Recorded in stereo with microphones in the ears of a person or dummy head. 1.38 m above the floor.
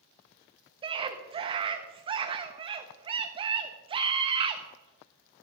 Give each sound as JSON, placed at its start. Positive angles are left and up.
{"t": 0.8, "sound": "a scream", "side_deg": -25, "distance_m": 1.3}